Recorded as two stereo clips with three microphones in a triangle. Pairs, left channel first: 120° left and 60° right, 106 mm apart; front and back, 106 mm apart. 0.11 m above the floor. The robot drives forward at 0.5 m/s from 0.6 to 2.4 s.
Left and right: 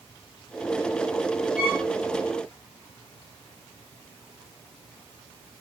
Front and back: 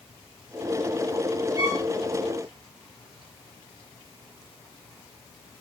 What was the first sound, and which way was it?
A violin, 140° right.